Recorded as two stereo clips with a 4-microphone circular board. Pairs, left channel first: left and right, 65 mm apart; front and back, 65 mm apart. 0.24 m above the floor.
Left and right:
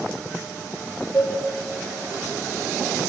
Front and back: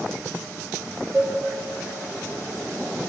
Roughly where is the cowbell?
Behind left.